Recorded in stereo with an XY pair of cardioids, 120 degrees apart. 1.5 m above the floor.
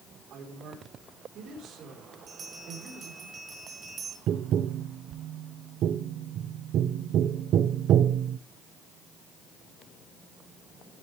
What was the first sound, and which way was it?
A man speaking, 65° right.